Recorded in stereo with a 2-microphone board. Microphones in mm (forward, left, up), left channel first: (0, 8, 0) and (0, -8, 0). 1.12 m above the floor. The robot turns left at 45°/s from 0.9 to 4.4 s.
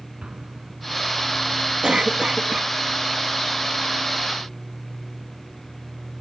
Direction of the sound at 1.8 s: 75° right.